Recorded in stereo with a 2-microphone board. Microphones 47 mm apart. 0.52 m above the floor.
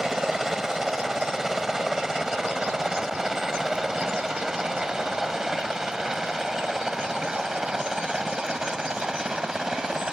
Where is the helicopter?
10° right (ahead or behind); by 10.1 s 15° right (ahead or behind).